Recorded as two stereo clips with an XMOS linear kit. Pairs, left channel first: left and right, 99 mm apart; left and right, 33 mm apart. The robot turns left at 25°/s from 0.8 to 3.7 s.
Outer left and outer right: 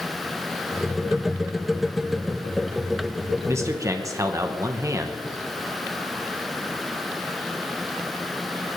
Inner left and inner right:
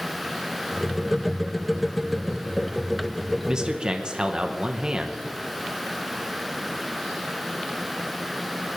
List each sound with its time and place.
3.5 s a man speaking: 25° right (ahead or behind), 1.1 m; by 5.2 s 30° right (ahead or behind), 1.1 m